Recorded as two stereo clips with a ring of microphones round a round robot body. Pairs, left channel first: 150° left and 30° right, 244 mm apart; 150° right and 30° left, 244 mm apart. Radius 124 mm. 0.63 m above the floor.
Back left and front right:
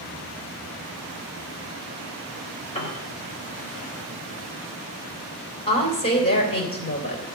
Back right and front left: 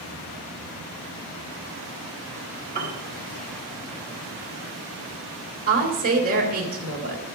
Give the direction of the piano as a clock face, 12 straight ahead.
9 o'clock.